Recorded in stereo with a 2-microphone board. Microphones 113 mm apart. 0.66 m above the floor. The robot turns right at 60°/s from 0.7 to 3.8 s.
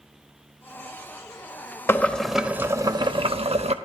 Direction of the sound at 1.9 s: 155° left.